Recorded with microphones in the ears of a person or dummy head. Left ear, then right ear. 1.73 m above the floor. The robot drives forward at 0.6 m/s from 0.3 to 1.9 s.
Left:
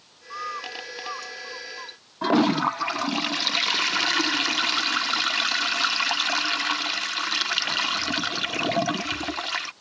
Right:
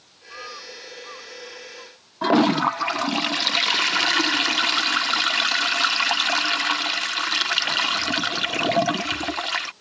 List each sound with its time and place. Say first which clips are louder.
0.3 s a bird: left 4 dB; 80° left; by 2.0 s 75° left (ahead or behind)
2.2 s a toilet flushing: right 3 dB; 5° right (ahead or behind)